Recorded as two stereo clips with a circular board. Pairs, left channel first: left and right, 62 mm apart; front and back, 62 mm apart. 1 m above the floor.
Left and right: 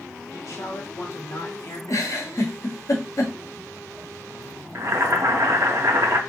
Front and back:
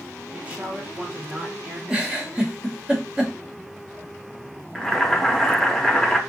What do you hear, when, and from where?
0.3 s a woman speaking: 115° left, 1.0 m
1.9 s a giggle: 105° left, 0.9 m
4.8 s boiling: 85° right, 0.7 m